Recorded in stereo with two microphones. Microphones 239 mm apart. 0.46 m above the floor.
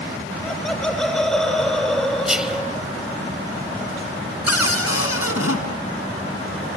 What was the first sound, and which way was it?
Laughter, centre (ahead or behind).